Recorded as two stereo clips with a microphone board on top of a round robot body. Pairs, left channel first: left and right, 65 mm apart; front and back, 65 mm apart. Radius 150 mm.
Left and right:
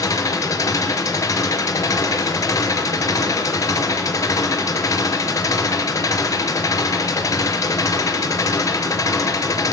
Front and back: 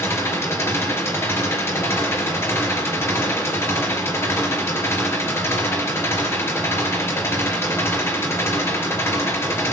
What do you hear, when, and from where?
0.0 s an engine running: 55° left, 4 m